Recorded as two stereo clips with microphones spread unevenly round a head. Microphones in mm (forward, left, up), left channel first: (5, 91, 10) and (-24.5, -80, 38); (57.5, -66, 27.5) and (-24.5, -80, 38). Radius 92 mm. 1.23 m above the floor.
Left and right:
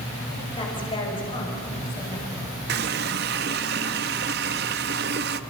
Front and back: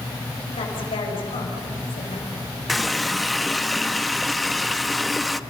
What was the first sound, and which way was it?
A woman speaking, 15° left.